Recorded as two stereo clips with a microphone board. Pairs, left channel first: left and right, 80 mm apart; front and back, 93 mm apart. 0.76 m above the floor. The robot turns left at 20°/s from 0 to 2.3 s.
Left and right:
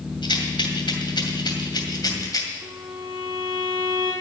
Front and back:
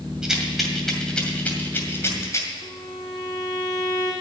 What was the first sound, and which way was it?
A rattle, 100° left.